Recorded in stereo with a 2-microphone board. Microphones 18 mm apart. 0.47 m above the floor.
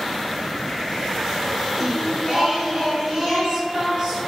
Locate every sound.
1.8 s singing: 35° right (ahead or behind), 0.9 m